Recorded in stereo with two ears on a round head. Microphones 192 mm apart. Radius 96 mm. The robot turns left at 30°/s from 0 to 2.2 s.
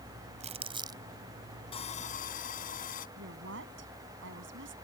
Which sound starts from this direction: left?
Sawing, at 1.7 s.